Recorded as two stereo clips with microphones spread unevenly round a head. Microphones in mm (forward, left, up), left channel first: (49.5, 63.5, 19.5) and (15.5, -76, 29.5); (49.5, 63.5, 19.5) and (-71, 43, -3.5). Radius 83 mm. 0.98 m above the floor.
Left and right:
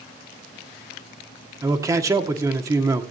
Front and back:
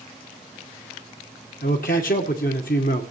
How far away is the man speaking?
About 1.7 m.